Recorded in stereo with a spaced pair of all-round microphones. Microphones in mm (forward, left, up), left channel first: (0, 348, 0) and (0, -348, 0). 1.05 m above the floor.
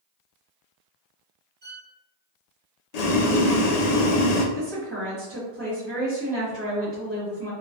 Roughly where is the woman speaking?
Right.